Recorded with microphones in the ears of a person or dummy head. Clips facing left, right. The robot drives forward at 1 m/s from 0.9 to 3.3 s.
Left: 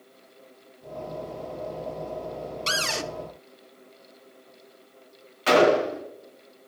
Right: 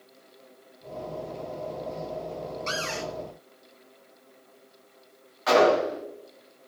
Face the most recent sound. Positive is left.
turn(degrees=35)  # may be behind; listen again after turning